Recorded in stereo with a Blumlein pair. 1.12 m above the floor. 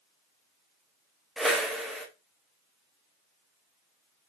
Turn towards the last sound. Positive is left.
turn(degrees=0)